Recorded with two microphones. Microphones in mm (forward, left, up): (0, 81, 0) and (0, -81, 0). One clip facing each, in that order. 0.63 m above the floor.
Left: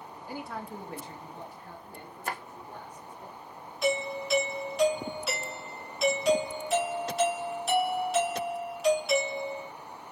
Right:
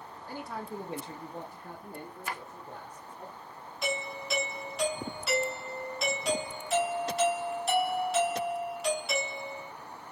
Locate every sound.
0.3 s a man speaking: 10° left (ahead or behind), 0.6 m; by 3.3 s 65° right (ahead or behind), 1.7 m
2.3 s a drawer: 50° left (ahead or behind), 0.6 m
3.8 s a doorbell: centre (ahead or behind), 2 m